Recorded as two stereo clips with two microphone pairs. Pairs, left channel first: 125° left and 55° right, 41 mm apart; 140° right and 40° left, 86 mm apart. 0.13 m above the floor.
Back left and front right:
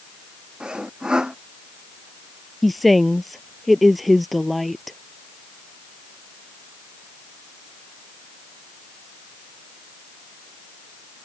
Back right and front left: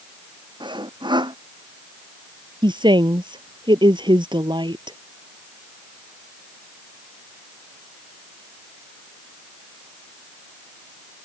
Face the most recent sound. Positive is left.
turn(degrees=35)